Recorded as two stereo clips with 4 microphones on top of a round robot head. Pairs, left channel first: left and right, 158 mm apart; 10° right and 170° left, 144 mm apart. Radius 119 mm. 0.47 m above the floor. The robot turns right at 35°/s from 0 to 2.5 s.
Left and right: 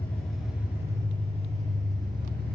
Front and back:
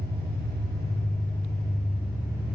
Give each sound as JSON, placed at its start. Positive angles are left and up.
{"t": 0.0, "sound": "an engine running", "azimuth_deg": 170, "distance_m": 3.0}